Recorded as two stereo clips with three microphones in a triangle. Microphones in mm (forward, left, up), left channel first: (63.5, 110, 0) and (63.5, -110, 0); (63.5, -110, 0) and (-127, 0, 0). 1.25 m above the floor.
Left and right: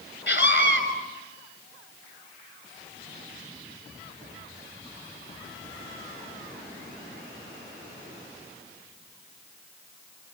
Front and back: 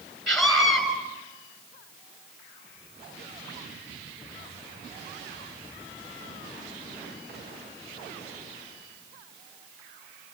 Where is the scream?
60° left, 7 m.